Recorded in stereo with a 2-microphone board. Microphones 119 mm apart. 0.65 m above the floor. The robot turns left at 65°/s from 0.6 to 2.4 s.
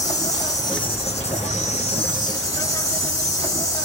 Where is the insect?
150° left, 3.5 m; by 3.9 s 30° left, 3.5 m.